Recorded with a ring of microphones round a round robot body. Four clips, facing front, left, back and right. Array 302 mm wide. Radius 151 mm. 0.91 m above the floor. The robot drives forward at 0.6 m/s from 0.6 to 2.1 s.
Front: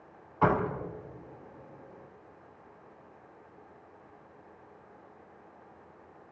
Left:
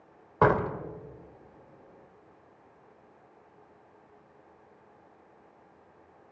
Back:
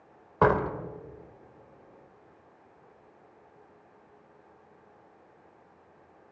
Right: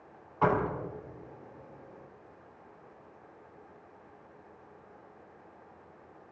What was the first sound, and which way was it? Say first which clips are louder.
A door slam: left 4 dB, back 3 dB; 135° left.